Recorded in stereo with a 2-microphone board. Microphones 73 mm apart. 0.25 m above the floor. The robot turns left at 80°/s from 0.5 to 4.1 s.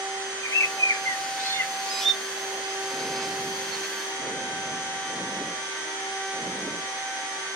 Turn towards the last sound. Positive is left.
turn(degrees=-160)